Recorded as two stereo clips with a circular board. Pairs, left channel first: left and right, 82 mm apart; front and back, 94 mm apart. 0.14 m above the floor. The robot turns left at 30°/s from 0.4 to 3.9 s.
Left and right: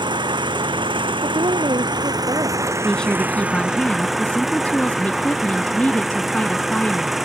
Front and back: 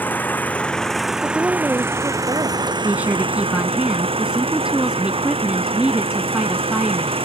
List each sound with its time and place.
0.0 s an engine running: 70° right; by 7.3 s 175° right
1.2 s a woman speaking: 95° right; by 2.7 s 140° right
2.8 s a woman speaking: 150° left; by 7.2 s 120° left